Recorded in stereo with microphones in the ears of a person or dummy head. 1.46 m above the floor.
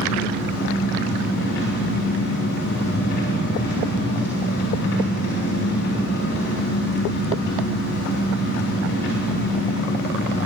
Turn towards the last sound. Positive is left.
turn(degrees=60)  # may be behind; listen again after turning